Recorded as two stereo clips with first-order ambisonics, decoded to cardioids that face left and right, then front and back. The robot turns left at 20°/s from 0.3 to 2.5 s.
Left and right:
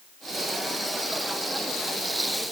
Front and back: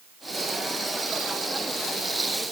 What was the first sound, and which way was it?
Only background noise.